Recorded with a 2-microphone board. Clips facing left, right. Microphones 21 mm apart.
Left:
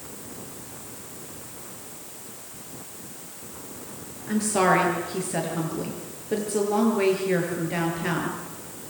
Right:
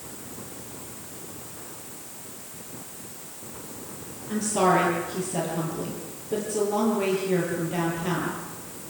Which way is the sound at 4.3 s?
75° left (ahead or behind).